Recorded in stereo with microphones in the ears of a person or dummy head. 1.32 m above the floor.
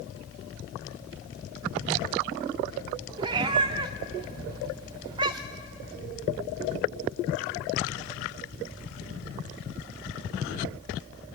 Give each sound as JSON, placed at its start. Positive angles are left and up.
{"t": 3.2, "sound": "a cat meowing", "side_deg": -25, "distance_m": 1.0}